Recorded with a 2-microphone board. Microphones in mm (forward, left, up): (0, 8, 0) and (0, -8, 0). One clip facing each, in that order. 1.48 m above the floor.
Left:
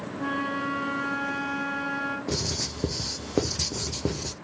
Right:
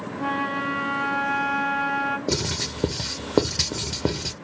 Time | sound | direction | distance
0.2 | a flute | 20° right (ahead or behind) | 0.8 m
2.3 | writing | 50° right (ahead or behind) | 0.5 m